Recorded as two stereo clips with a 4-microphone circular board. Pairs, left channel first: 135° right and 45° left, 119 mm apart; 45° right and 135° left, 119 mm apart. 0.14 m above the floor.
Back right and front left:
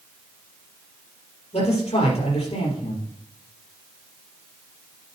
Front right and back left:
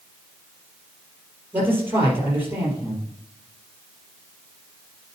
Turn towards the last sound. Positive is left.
turn(degrees=-155)